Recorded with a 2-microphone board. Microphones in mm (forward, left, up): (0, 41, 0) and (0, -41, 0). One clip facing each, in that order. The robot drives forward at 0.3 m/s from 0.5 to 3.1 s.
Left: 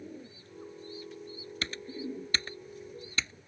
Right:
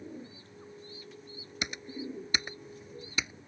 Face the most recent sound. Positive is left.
turn(degrees=-15)  # may be behind; listen again after turning